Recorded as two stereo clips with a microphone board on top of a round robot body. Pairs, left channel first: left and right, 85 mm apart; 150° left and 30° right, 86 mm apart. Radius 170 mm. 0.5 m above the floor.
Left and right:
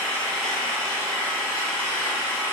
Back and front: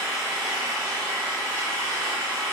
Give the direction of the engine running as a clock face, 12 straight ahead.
11 o'clock.